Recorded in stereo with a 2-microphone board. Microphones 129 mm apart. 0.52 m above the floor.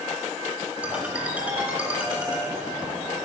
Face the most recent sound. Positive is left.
turn(degrees=-10)  # may be behind; listen again after turning